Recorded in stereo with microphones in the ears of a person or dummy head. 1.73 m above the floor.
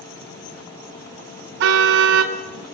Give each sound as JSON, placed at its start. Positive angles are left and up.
{"t": 1.6, "sound": "a car horn", "side_deg": -65, "distance_m": 2.5}